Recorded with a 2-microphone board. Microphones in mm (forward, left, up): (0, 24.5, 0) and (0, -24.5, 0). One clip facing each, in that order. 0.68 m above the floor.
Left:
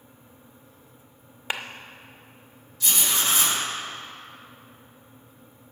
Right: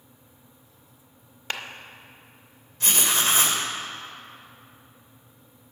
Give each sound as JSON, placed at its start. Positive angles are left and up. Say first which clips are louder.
{"t": 1.5, "sound": "a clap", "louder": "left 2 dB", "side_deg": 15, "distance_m": 0.7}
{"t": 2.8, "sound": "writing", "louder": "right 2 dB", "side_deg": -45, "distance_m": 1.9}